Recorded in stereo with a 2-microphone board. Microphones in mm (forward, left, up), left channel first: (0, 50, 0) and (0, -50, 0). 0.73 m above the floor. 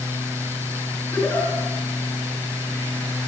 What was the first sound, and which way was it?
A giggle, 30° left (ahead or behind).